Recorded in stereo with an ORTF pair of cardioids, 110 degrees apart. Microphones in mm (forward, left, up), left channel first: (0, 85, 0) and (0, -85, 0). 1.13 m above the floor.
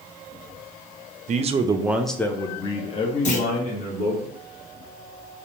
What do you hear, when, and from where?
1.3 s a man speaking: 45° right, 0.5 m; by 4.2 s 50° left, 1.4 m
3.2 s a clunk: 45° left, 0.9 m